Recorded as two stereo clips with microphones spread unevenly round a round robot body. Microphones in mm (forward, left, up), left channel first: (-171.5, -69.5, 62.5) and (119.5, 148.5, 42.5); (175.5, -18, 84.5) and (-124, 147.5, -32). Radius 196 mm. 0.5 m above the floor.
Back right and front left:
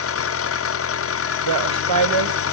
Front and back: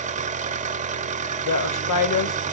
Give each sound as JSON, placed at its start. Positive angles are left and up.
{"t": 0.0, "sound": "an engine running", "azimuth_deg": 180, "distance_m": 0.8}
{"t": 1.4, "sound": "a woman speaking", "azimuth_deg": 10, "distance_m": 2.5}